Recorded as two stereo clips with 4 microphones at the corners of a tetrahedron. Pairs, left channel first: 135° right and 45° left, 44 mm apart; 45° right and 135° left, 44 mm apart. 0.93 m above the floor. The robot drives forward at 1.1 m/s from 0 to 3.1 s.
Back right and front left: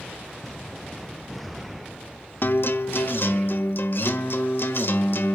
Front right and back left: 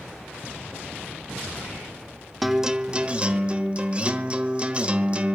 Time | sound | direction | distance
2.4 | a guitar | 135° right | 0.7 m